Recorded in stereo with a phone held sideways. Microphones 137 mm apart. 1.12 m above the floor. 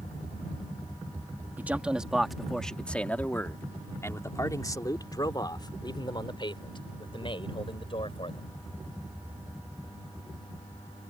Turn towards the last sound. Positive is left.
turn(degrees=40)  # may be behind; listen again after turning